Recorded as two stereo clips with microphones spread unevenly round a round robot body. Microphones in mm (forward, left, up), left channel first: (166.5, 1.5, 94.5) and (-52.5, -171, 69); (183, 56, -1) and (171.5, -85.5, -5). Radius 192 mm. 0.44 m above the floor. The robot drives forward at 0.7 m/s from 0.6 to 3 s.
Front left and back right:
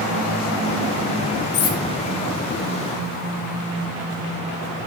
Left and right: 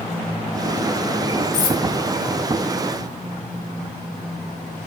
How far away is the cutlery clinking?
About 0.5 m.